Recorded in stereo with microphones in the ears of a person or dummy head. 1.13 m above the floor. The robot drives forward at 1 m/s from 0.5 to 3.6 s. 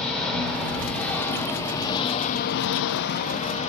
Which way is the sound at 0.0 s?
15° left (ahead or behind).